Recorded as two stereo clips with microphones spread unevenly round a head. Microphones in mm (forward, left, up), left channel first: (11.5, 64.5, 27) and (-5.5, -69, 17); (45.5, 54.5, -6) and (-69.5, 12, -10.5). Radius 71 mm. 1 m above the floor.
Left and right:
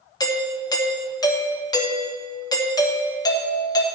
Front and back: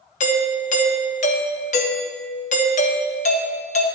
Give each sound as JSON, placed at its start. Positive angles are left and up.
{"t": 0.2, "sound": "a doorbell", "azimuth_deg": 25, "distance_m": 1.3}